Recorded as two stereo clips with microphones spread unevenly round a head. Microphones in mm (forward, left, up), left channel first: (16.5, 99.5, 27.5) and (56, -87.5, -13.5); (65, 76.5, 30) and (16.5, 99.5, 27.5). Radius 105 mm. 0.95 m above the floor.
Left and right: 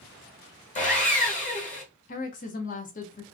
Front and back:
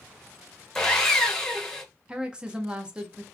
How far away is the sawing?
About 1.0 m.